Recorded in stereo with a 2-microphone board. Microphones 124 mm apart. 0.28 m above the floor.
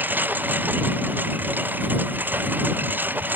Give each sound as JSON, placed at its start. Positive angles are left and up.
{"t": 0.0, "sound": "a lawn mower", "side_deg": -15}